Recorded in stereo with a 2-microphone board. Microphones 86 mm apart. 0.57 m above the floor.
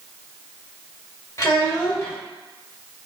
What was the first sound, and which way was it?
A child speaking, 40° left (ahead or behind).